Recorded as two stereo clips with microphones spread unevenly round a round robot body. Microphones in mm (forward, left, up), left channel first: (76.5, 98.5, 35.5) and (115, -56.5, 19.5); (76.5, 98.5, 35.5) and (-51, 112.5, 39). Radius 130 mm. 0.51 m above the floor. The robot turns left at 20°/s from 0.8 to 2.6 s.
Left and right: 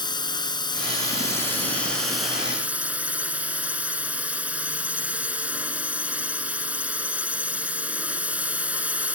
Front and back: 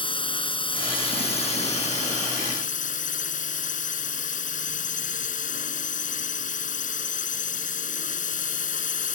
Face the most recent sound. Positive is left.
turn(degrees=5)